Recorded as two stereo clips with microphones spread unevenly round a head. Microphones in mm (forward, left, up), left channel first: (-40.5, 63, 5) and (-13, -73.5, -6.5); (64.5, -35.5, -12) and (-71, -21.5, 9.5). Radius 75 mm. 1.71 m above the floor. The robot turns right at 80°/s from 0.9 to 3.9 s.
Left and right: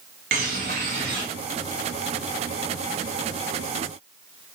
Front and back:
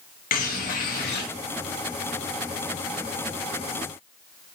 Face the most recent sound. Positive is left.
turn(degrees=-155)